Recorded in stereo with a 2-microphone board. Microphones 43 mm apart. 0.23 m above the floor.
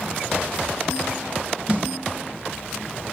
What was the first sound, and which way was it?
A snare drum, 30° right (ahead or behind).